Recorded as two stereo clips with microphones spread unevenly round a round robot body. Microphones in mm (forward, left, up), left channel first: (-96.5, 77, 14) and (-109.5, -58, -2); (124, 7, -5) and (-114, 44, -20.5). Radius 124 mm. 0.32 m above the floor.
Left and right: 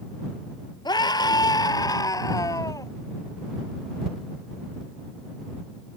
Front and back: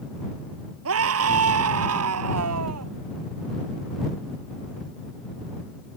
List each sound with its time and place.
0.8 s a scream: 145° left; by 2.9 s 150° left